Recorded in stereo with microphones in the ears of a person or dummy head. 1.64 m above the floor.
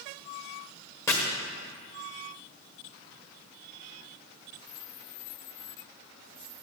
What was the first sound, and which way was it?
Chopping, 5° left (ahead or behind).